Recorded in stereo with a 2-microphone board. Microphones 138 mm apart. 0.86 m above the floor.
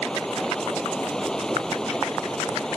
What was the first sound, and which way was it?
Running water, 5° left (ahead or behind).